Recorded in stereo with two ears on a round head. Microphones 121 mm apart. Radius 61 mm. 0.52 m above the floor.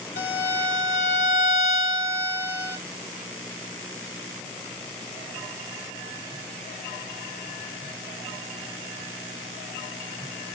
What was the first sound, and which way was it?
A violin, 85° left.